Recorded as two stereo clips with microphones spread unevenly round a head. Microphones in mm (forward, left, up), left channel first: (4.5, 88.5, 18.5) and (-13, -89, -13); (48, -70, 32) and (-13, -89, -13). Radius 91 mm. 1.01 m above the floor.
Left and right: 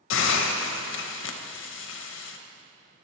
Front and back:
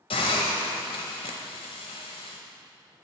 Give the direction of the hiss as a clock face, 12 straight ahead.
10 o'clock.